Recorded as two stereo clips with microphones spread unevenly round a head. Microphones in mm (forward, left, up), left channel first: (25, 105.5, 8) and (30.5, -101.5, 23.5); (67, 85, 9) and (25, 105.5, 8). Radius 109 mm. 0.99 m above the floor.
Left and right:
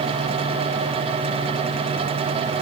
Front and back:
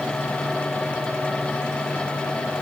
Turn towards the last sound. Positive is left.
No sound to turn to.